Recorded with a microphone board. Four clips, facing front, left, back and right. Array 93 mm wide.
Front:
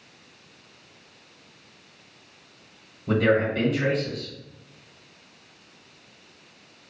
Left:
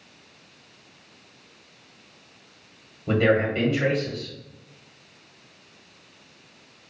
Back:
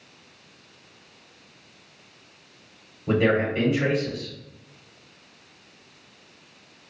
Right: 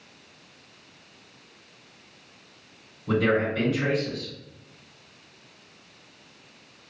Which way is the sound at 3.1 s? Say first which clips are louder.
Left 2 dB, even; 120° left.